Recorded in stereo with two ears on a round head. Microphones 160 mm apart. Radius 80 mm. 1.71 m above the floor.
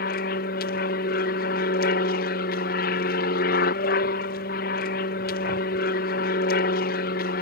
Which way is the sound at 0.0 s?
55° left (ahead or behind).